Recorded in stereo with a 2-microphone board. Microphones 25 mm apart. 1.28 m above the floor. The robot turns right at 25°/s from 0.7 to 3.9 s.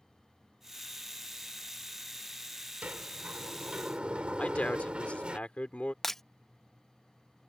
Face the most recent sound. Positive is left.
turn(degrees=10)  # may be behind; listen again after turning